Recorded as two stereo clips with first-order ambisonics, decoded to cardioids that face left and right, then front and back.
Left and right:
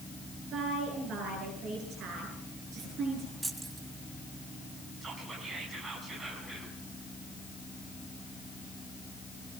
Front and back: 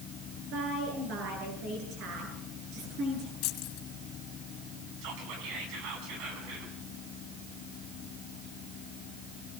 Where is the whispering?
160° right, 5.5 m.